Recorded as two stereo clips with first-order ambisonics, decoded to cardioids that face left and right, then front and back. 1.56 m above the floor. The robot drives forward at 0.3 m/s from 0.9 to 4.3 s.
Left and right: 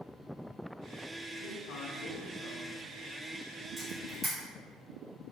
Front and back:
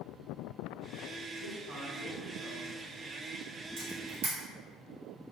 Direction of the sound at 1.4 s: 65° left.